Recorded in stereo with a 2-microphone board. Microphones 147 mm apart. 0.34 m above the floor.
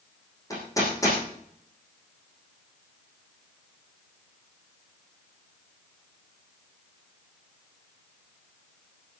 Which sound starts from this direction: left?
Hammering, at 0.5 s.